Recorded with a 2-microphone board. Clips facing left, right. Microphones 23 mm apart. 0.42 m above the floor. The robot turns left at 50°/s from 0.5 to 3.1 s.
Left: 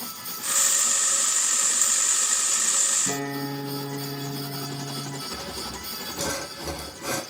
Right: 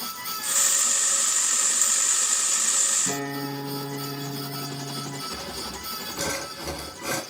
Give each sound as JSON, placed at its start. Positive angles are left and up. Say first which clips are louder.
{"t": 3.1, "sound": "a guitar", "louder": "even", "side_deg": -10, "distance_m": 6.5}
{"t": 5.3, "sound": "sawing", "louder": "even", "side_deg": -80, "distance_m": 1.6}